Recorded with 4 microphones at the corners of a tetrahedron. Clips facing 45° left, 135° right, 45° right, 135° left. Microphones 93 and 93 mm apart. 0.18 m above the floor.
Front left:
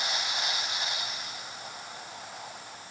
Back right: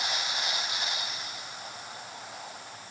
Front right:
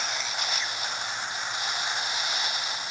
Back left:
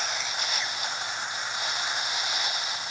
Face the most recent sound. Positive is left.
No sound to turn to.